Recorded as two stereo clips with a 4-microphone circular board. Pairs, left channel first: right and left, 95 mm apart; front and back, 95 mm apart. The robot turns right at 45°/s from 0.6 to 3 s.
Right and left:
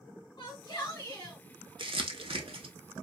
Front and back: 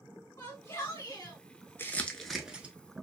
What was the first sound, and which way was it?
A shout, 50° right.